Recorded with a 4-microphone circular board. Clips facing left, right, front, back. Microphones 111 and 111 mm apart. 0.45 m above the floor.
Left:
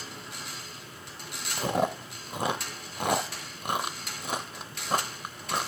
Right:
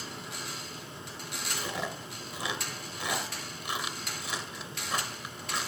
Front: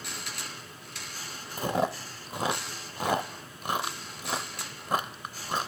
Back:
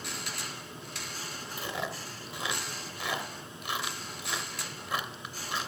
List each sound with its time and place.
1.6 s chewing: 50° left, 0.5 m